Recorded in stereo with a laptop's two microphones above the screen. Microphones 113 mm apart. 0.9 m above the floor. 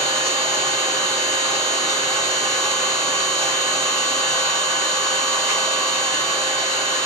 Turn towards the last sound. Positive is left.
turn(degrees=-25)  # may be behind; listen again after turning